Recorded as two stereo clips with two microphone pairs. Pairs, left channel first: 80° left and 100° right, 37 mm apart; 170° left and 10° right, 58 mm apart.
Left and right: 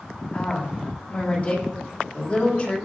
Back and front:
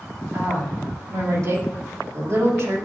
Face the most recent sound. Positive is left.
turn(degrees=25)